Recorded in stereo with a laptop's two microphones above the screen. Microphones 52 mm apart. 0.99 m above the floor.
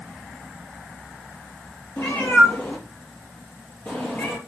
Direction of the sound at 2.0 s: 60° left (ahead or behind).